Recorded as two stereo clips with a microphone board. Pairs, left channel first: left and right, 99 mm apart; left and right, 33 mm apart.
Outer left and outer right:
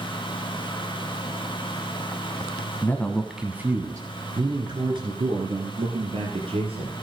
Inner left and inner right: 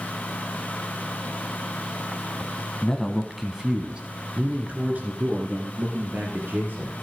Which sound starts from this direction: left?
A man speaking, at 2.8 s.